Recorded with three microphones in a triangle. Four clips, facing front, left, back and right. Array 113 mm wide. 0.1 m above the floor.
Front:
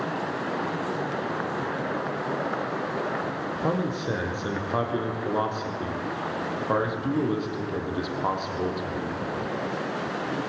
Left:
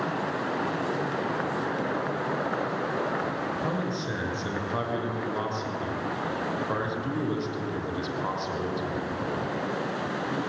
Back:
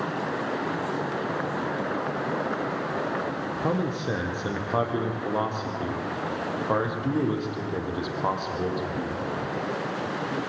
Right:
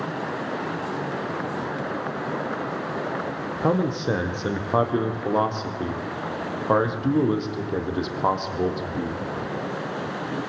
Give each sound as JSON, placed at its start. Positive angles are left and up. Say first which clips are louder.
{"t": 3.6, "sound": "a man speaking", "louder": "right 7 dB, even", "azimuth_deg": -90, "distance_m": 3.5}